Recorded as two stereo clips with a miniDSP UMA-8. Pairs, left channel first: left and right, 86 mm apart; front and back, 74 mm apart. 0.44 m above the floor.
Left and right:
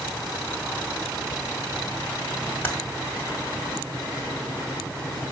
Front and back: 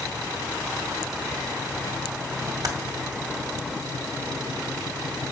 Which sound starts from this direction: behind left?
Typing on a keyboard, at 2.6 s.